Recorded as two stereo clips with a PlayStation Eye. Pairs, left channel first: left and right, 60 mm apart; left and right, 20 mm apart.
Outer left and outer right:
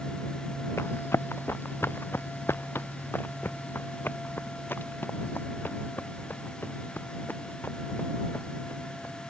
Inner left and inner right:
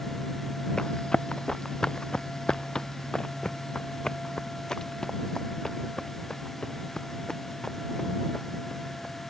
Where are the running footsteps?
45° left (ahead or behind); by 9.1 s 30° left (ahead or behind).